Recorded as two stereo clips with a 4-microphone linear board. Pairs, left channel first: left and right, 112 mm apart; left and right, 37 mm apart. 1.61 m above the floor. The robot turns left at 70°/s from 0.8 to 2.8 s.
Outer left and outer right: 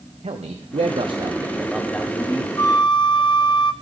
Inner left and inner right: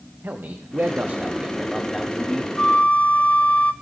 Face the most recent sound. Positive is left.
turn(degrees=40)  # may be behind; listen again after turning